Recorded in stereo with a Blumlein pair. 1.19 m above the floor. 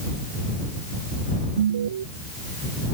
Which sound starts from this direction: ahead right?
An alarm, at 1.6 s.